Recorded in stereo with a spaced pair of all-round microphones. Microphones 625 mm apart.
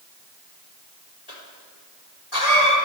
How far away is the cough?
About 3.5 m.